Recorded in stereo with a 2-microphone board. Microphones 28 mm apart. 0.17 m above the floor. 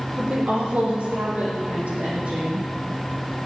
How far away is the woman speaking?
About 6.5 m.